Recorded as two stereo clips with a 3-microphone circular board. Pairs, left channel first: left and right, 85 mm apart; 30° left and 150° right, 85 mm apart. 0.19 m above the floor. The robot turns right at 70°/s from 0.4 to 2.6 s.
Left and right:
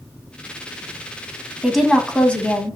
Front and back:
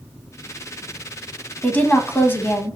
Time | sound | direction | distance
1.6 | a woman speaking | 10° right | 1.1 m